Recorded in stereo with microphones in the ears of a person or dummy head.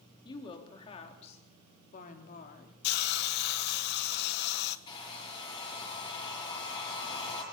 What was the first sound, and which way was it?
A woman speaking, 30° left (ahead or behind).